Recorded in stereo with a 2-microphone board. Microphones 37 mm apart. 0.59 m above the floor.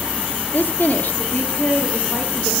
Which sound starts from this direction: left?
A woman speaking, at 0.5 s.